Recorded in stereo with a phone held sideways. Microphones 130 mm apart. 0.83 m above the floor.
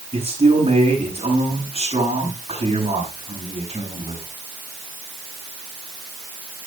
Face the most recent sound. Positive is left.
turn(degrees=-50)  # may be behind; listen again after turning